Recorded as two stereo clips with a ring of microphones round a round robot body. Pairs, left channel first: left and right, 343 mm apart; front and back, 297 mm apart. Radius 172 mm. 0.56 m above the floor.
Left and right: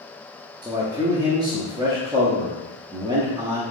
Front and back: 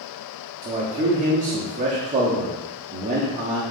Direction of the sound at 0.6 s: 155° right.